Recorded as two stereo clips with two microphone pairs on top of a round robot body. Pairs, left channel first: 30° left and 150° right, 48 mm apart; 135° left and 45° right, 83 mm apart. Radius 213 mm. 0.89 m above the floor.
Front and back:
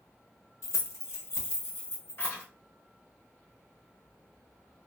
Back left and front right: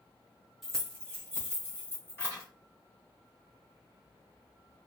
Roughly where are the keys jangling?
Ahead left.